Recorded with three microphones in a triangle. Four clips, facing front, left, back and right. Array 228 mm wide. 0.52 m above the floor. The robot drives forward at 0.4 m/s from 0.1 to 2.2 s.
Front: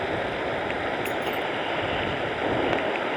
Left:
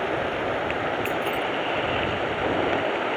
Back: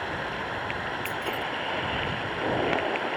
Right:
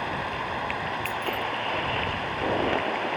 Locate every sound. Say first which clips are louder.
0.0 s running water: left 5 dB, front 5 dB; 55° left
1.1 s keys jangling: left 4 dB, front 4 dB; 65° left; by 1.4 s 70° left